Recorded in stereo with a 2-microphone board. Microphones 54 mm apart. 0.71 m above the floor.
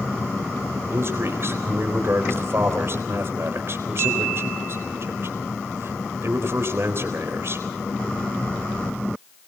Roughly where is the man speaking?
Right.